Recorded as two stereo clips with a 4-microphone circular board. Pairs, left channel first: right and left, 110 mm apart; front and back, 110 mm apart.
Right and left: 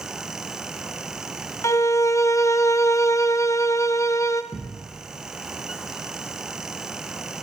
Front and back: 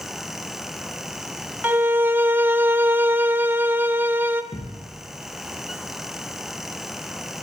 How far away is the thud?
About 3.5 m.